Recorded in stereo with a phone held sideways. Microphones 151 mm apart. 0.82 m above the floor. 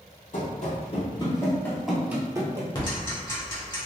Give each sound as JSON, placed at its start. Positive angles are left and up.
{"t": 0.3, "sound": "running footsteps", "side_deg": 55, "distance_m": 1.4}
{"t": 2.8, "sound": "ticking", "side_deg": 30, "distance_m": 1.2}